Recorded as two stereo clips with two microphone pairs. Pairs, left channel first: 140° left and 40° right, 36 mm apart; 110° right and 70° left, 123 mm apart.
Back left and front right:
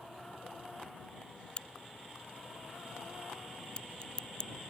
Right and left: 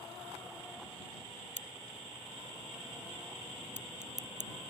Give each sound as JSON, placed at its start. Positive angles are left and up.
{"t": 1.6, "sound": "a crack", "azimuth_deg": 80}